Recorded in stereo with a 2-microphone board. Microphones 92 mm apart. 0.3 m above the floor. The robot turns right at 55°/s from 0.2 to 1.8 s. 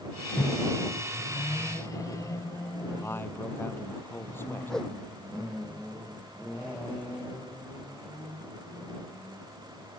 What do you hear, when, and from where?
0.4 s a microwave: 25° left; by 3.3 s 105° left
3.0 s a man speaking: 25° left (ahead or behind)
4.7 s a whoosh: 5° left (ahead or behind)